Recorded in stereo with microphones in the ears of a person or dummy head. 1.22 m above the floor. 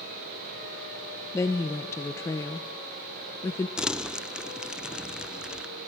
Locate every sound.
1.3 s a woman speaking: 20° left (ahead or behind), 0.9 m
3.8 s crumpling: centre (ahead or behind), 0.6 m